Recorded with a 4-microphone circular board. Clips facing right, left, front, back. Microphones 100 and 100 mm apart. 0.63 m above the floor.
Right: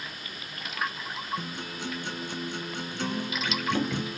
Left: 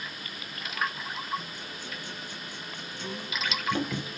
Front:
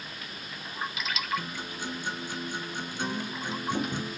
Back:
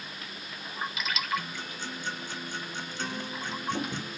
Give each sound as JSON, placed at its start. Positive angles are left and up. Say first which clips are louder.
{"t": 1.4, "sound": "a guitar", "louder": "right 5 dB, front 2 dB", "azimuth_deg": -75, "distance_m": 2.5}